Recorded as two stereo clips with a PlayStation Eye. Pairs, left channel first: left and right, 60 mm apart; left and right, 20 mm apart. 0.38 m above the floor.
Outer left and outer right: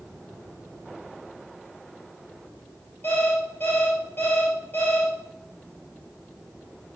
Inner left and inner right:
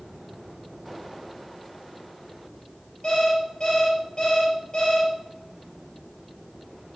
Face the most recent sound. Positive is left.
turn(degrees=35)  # may be behind; listen again after turning